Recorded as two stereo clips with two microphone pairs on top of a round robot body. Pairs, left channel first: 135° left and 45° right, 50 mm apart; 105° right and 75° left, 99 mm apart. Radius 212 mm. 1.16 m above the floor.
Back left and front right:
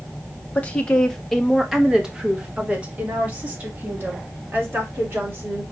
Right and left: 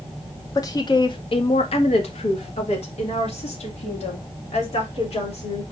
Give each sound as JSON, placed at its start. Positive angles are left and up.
{"t": 0.6, "sound": "a woman speaking", "azimuth_deg": -165, "distance_m": 0.9}